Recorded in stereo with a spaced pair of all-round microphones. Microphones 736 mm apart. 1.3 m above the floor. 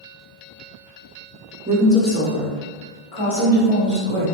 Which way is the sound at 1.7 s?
15° right (ahead or behind).